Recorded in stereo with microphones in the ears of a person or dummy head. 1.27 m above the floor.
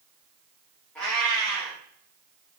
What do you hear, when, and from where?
0.9 s a cat meowing: 5° left (ahead or behind), 1.3 m